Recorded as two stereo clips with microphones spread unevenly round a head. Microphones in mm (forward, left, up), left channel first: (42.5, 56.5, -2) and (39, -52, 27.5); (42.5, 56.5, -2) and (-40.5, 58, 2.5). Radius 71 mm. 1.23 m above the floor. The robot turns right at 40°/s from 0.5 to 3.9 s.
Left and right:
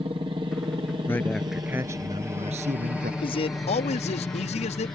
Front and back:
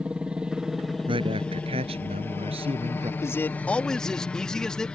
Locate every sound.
0.0 s a helicopter: 110° right; by 5.0 s 60° left
1.1 s a man speaking: 165° left; by 3.1 s 115° right
3.2 s a man speaking: 55° left; by 4.9 s 80° left